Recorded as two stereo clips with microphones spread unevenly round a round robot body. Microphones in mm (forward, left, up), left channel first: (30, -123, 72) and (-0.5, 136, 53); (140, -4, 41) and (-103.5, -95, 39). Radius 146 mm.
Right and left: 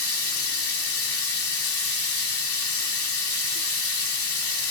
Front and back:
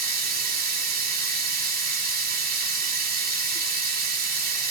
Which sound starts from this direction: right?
Running water, at 0.0 s.